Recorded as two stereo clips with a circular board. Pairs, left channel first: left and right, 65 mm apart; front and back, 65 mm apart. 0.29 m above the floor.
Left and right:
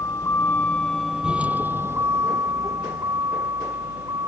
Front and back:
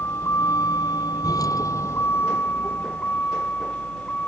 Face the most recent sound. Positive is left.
turn(degrees=-70)